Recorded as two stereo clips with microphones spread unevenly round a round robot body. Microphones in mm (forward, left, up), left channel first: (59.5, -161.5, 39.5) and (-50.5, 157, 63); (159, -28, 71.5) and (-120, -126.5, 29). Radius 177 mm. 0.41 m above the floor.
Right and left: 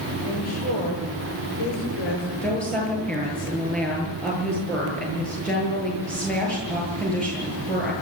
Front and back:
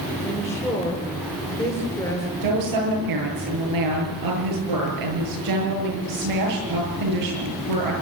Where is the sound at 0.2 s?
60° right, 9.5 m.